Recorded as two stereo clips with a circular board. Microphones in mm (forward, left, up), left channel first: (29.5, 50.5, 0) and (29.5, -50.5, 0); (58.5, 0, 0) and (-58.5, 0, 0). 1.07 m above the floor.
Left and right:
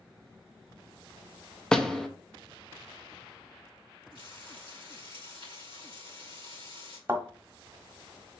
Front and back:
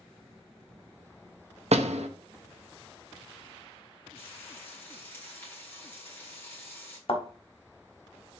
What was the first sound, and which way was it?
A door slam, 170° left.